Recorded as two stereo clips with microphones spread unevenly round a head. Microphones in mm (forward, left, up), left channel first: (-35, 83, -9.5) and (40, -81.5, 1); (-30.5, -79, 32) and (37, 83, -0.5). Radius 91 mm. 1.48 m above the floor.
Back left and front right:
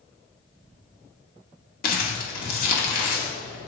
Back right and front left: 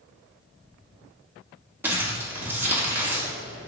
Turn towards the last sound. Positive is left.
turn(degrees=155)